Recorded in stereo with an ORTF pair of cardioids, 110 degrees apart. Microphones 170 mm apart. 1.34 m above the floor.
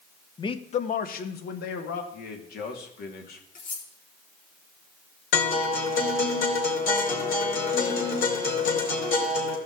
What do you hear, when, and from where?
0.4 s a man speaking: 25° left, 0.9 m; by 2.0 s 80° left, 1.8 m
2.1 s a man speaking: 65° left, 2.5 m
3.5 s cutlery clinking: 55° left, 3 m
5.3 s a guitar: 65° left, 4 m